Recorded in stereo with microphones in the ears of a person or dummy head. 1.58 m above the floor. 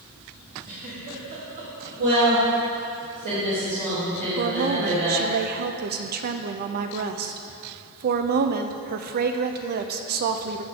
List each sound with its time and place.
0.6 s a giggle: 45° right (ahead or behind), 3.5 m
2.0 s a woman speaking: 60° right (ahead or behind), 3 m
4.4 s a woman speaking: 50° right (ahead or behind), 0.6 m